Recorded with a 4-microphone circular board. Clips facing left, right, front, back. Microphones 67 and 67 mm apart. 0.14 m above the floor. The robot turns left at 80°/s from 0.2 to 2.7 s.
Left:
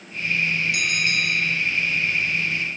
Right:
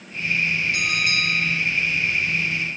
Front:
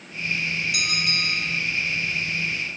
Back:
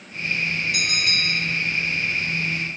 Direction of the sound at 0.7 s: 140° right.